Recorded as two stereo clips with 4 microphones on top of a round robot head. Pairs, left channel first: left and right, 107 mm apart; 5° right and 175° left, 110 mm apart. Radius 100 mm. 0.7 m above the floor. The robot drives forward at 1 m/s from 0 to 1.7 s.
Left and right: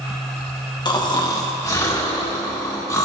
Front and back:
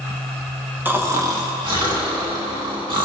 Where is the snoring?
110° left, 1.4 m; by 3.0 s 140° left, 1.8 m.